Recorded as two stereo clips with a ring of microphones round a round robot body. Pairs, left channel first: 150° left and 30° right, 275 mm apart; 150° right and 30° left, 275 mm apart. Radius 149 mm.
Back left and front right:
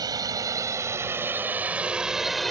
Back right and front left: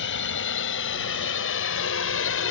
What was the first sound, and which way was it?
A drone, 105° right.